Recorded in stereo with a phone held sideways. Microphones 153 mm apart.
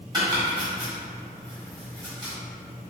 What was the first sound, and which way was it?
Chopping, 25° right (ahead or behind).